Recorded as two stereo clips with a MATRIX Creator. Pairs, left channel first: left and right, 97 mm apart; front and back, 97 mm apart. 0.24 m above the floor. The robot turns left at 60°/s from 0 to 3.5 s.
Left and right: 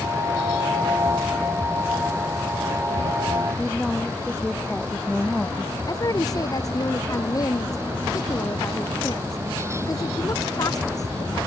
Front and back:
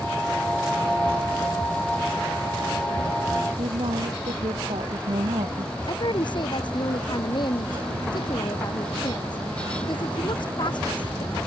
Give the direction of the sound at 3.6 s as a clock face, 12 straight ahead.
6 o'clock.